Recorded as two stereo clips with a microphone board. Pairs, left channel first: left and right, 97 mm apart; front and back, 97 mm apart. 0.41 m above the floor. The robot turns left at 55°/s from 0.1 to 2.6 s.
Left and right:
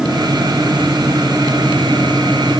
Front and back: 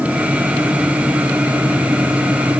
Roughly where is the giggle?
No giggle in this recording.